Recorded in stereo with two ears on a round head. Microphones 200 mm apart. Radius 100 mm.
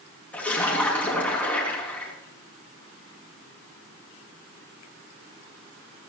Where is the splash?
5° left (ahead or behind), 5 m.